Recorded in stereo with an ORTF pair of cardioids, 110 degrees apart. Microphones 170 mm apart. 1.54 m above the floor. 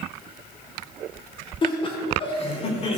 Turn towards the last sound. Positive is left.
turn(degrees=40)